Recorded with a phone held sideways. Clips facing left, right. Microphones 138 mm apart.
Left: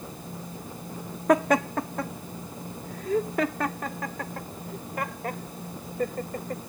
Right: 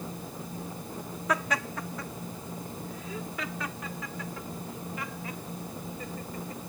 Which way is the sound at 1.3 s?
55° left (ahead or behind).